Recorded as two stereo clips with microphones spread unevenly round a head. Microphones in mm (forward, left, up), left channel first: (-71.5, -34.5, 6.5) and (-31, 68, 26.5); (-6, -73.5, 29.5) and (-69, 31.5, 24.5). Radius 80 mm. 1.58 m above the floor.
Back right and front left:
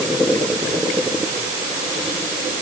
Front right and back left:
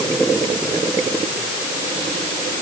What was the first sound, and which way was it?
Only background noise.